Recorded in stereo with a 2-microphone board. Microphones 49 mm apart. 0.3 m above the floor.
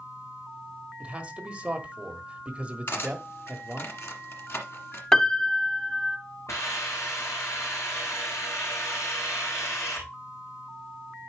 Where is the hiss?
75° left (ahead or behind), 4 m.